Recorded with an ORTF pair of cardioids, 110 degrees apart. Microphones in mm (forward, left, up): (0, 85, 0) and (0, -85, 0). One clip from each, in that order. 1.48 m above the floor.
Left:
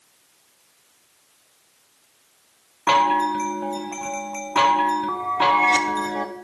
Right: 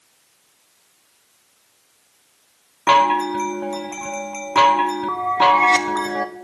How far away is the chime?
About 0.7 m.